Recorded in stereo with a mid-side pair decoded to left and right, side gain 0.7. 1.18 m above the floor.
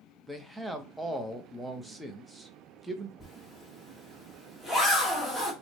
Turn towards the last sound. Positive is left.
turn(degrees=5)